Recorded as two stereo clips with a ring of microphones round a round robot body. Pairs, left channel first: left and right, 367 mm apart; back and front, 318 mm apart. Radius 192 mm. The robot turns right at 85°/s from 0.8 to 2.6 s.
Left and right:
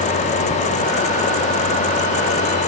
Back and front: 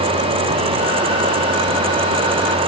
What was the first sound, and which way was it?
Only background noise.